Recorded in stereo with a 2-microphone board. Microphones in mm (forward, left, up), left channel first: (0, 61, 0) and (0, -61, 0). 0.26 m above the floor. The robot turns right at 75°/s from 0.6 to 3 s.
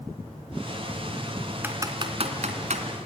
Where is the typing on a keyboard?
15° right (ahead or behind), 2 m; by 2.8 s 65° right (ahead or behind), 2 m.